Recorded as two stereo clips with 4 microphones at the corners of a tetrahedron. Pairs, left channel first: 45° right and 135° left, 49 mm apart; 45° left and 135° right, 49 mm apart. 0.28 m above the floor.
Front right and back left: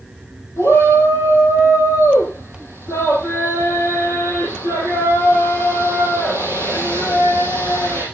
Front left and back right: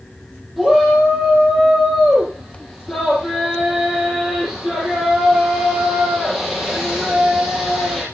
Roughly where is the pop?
I don't hear a pop.